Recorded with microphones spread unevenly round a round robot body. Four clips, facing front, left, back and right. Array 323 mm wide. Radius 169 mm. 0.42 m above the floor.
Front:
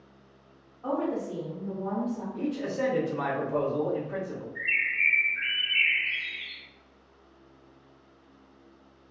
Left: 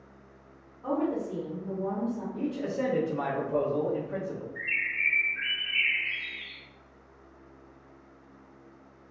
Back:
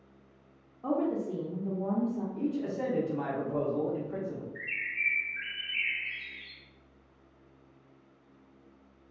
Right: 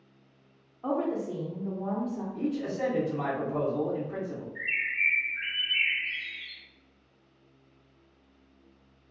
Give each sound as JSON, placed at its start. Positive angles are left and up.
{"t": 0.8, "sound": "a woman speaking", "azimuth_deg": -160, "distance_m": 0.8}
{"t": 2.3, "sound": "a man speaking", "azimuth_deg": 60, "distance_m": 1.4}
{"t": 4.5, "sound": "a bird", "azimuth_deg": 160, "distance_m": 0.8}